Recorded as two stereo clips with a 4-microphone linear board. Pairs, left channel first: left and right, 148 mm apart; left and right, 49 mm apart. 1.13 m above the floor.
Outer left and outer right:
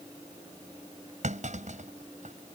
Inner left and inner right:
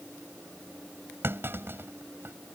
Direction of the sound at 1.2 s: 55° right (ahead or behind).